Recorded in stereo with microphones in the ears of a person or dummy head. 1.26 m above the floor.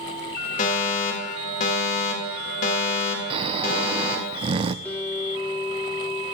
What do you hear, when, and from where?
0.6 s a fire alarm: 45° left (ahead or behind), 3.5 m
3.3 s snoring: 35° right (ahead or behind), 0.6 m
4.8 s a guitar: 15° left (ahead or behind), 3.5 m